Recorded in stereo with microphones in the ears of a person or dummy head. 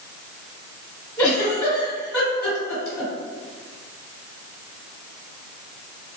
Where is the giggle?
10° left (ahead or behind), 1.4 m.